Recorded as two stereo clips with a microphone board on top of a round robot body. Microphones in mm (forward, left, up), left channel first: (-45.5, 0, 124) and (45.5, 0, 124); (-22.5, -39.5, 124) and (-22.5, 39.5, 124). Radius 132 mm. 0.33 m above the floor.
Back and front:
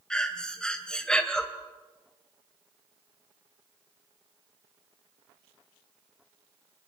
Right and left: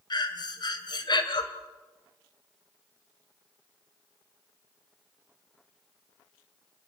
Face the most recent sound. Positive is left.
turn(degrees=-100)